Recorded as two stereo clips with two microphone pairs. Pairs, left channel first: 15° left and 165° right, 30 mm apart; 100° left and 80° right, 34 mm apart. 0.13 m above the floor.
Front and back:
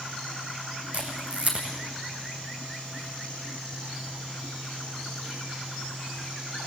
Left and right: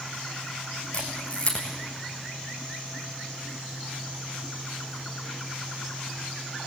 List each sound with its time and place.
0.9 s a camera shutter: 150° left, 4 m